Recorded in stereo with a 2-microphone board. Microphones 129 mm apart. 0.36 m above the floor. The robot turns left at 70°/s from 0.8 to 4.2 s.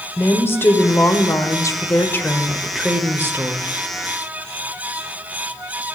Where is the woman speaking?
20° left (ahead or behind), 1.2 m; by 3.7 s 25° right (ahead or behind), 1.2 m.